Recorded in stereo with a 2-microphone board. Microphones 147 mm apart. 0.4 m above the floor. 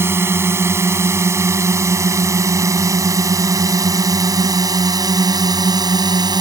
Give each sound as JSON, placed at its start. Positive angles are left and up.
{"t": 0.0, "sound": "a drone", "side_deg": -15}